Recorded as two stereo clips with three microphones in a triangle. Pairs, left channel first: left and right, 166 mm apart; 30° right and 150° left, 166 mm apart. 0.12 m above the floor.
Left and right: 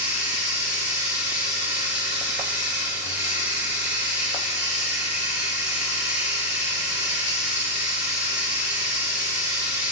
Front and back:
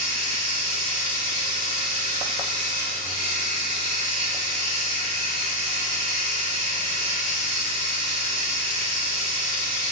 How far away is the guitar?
No guitar in this recording.